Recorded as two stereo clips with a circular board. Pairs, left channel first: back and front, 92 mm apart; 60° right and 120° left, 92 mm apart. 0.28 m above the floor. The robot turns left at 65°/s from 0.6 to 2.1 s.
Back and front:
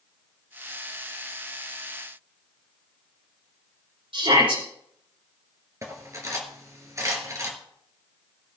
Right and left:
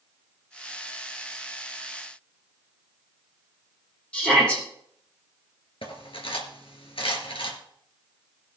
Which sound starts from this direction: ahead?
A shout, at 4.1 s.